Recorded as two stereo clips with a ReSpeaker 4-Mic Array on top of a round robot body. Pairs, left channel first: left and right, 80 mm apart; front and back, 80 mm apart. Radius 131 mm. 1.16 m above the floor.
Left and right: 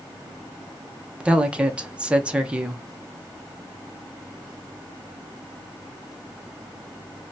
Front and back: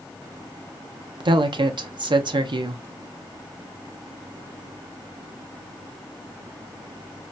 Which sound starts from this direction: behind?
A woman speaking, at 1.2 s.